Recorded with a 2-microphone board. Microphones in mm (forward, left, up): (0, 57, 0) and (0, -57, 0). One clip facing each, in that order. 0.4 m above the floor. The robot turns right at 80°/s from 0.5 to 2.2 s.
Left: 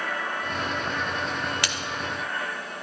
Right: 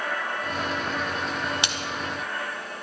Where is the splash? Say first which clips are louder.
Even; 20° right (ahead or behind), 1.2 m; by 1.8 s 10° right (ahead or behind), 1.2 m.